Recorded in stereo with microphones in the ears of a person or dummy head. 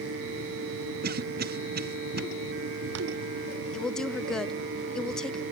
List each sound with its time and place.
1.0 s a cough: 45° right (ahead or behind), 0.6 m
3.7 s a woman speaking: 5° left (ahead or behind), 0.6 m